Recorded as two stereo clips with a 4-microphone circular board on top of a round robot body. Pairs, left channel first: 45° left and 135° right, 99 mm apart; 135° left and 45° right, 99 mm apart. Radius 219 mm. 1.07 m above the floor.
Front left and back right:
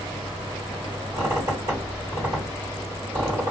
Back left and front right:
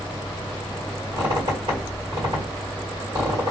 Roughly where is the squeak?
Right.